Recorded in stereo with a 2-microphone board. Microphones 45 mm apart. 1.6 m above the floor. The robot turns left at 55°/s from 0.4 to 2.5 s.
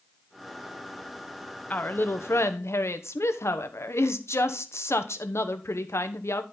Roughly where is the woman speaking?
Behind left.